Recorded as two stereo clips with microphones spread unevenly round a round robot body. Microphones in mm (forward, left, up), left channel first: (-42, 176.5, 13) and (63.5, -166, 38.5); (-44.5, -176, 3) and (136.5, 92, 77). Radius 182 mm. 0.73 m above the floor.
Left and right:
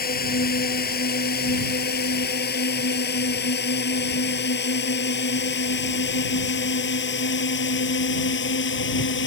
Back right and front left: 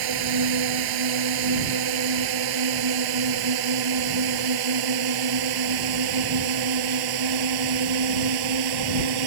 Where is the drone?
40° left; by 9.3 s 50° left.